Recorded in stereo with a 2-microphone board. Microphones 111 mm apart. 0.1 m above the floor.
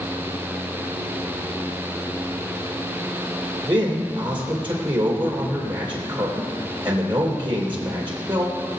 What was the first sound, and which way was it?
A man speaking, 45° right (ahead or behind).